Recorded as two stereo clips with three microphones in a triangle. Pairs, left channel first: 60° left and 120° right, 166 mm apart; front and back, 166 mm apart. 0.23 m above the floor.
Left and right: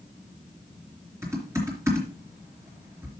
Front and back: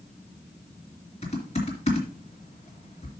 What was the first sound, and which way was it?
Typing on a keyboard, 45° right.